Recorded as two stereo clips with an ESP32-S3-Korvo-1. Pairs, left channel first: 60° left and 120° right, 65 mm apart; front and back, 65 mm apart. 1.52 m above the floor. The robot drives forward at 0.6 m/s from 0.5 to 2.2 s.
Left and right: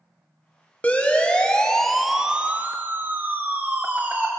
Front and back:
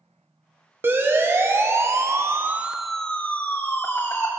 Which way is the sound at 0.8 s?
125° left.